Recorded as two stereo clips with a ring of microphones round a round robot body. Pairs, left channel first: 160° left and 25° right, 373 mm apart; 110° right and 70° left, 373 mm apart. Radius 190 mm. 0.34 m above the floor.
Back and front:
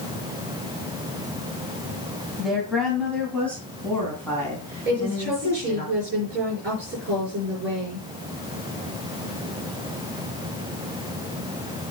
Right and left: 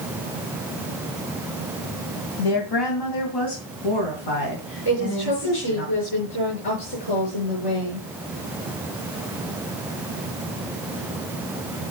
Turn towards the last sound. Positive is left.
turn(degrees=-90)